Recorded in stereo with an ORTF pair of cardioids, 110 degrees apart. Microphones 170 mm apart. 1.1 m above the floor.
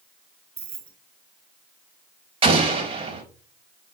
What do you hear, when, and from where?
0.6 s keys jangling: 40° right, 2 m
2.4 s an explosion: 35° right, 3.5 m